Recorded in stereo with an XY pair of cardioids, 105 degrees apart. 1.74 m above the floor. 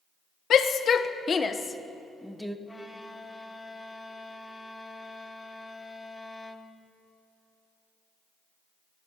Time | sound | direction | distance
0.5 | a shout | 60° left | 1.4 m
2.7 | a violin | 15° left | 1.4 m